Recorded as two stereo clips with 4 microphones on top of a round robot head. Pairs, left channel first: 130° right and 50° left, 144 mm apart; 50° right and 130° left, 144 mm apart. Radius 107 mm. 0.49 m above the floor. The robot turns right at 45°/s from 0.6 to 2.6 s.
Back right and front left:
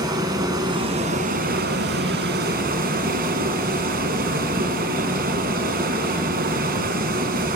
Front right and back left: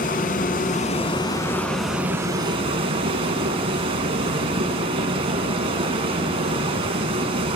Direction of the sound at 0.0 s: 15° right.